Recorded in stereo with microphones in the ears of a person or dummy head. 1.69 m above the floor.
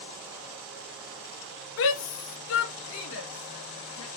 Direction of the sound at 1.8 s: 70° left (ahead or behind).